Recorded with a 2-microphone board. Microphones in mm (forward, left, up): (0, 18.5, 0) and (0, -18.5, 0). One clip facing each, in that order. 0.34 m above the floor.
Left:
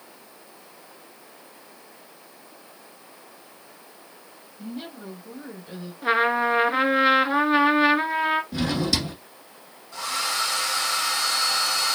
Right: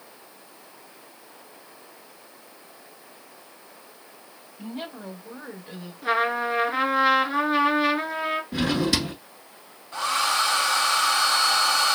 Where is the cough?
No cough in this recording.